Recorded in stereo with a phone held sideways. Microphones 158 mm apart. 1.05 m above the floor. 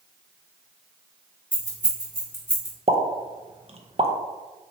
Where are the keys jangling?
55° left (ahead or behind), 1.5 m.